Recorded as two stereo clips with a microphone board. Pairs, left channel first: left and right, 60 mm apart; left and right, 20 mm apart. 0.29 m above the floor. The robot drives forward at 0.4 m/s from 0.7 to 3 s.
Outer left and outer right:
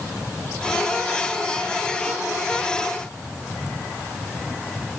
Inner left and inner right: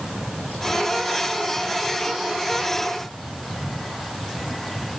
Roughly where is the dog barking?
I don't hear a dog barking.